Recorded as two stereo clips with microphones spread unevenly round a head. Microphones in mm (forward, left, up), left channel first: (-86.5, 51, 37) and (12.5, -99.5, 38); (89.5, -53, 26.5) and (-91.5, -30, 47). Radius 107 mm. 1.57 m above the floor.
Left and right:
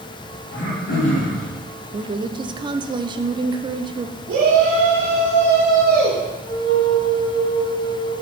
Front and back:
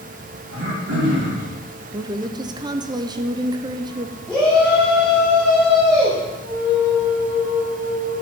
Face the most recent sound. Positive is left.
turn(degrees=-80)